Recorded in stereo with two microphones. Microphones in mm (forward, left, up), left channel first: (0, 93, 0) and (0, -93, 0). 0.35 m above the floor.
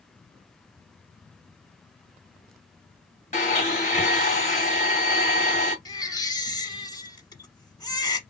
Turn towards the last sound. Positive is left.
turn(degrees=20)  # may be behind; listen again after turning